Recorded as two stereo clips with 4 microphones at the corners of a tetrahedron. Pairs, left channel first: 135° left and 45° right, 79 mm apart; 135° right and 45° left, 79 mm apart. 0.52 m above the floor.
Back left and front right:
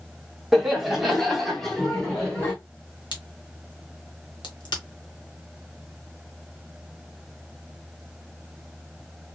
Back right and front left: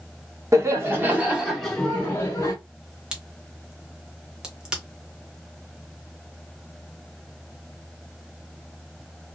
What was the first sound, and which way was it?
Laughter, 40° left.